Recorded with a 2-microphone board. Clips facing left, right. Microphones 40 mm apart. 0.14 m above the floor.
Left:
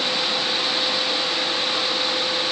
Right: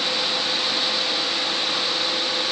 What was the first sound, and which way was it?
Only background noise.